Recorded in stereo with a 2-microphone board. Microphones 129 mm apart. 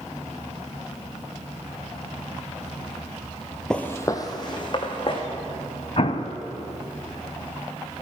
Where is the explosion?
50° left (ahead or behind), 0.5 m.